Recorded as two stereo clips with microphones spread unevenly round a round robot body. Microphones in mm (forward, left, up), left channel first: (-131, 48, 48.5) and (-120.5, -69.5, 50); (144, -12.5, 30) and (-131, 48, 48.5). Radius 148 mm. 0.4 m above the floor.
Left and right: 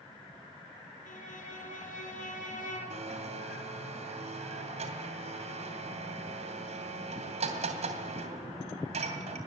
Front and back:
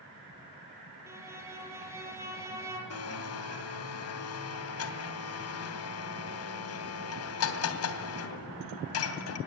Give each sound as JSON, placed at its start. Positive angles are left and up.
{"t": 1.1, "sound": "a violin", "azimuth_deg": 85, "distance_m": 5.0}
{"t": 2.9, "sound": "a blender", "azimuth_deg": -45, "distance_m": 2.5}